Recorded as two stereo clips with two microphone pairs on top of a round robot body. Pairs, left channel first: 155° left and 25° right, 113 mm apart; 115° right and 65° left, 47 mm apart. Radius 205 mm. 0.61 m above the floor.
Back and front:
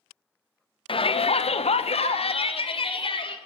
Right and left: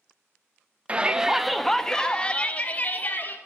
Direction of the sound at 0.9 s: 125° left.